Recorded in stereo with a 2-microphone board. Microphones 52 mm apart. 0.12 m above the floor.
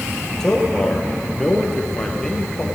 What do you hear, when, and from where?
0.4 s a man speaking: 10° left (ahead or behind), 1.9 m